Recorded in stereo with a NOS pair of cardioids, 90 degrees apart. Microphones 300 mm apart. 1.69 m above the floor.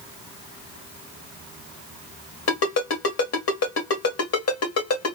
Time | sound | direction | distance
2.5 | a ringtone | 55° left | 2.5 m